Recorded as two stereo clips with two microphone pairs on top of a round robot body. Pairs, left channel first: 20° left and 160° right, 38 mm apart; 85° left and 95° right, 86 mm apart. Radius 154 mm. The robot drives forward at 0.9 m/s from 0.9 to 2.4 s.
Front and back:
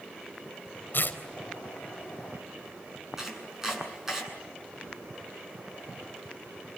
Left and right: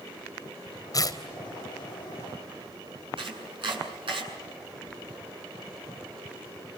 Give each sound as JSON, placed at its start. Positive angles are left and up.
{"t": 0.9, "sound": "tearing paper", "azimuth_deg": 40, "distance_m": 3.5}
{"t": 3.2, "sound": "chopping", "azimuth_deg": -85, "distance_m": 8.0}